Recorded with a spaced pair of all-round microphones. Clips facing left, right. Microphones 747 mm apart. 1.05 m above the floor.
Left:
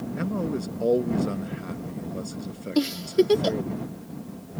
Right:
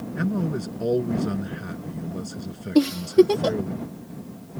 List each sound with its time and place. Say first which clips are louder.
0.2 s a man speaking: right 3 dB; 45° right (ahead or behind)
2.8 s a giggle: right 5 dB; 70° right (ahead or behind)